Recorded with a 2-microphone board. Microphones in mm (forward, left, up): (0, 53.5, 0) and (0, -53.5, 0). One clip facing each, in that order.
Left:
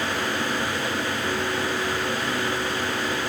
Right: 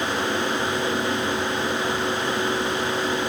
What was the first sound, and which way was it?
Only background noise.